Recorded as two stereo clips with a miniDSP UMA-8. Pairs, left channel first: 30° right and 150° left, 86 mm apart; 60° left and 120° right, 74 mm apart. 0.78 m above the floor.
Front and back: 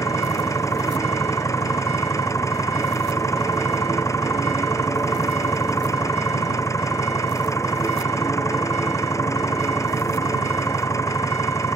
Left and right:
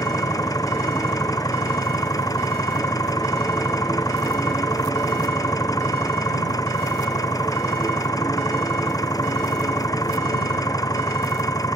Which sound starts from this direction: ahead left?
An engine running, at 0.0 s.